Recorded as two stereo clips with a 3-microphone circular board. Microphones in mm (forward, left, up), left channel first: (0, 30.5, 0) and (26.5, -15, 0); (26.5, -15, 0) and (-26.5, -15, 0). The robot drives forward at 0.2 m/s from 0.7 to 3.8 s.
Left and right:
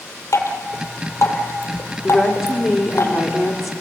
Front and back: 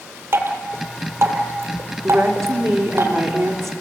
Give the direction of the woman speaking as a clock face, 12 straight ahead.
5 o'clock.